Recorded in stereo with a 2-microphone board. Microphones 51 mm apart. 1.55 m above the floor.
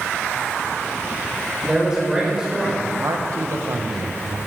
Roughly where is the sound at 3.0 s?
Right.